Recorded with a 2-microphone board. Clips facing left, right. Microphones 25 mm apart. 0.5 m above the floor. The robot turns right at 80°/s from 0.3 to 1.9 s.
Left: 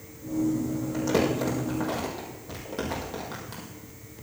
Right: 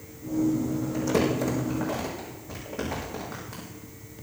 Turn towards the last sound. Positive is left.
turn(degrees=85)